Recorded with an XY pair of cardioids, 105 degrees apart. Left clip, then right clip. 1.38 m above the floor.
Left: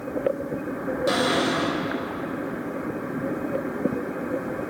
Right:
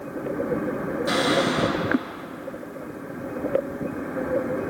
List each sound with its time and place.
1.1 s a cupboard door: 25° left, 7 m